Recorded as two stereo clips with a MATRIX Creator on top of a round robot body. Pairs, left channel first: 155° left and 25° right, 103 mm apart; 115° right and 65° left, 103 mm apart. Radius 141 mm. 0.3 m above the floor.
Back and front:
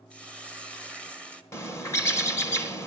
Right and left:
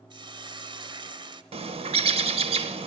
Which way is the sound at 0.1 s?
85° left.